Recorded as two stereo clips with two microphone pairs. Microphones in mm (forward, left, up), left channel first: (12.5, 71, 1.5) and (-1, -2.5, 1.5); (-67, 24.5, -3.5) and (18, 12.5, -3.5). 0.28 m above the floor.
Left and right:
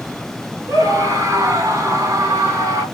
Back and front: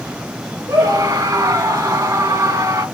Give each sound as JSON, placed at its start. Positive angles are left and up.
{"t": 0.7, "sound": "a scream", "azimuth_deg": -55, "distance_m": 5.0}